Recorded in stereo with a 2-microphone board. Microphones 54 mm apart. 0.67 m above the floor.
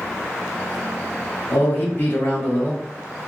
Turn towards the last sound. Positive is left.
turn(degrees=40)  # may be behind; listen again after turning